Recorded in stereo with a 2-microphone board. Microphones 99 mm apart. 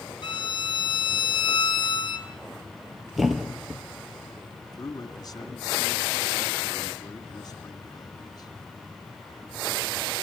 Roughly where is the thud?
Centre.